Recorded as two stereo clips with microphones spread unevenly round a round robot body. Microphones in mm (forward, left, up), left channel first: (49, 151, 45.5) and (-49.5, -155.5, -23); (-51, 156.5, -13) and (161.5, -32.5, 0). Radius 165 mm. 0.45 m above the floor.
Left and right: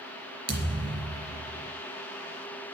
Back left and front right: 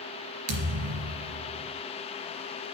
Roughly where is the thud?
Ahead right.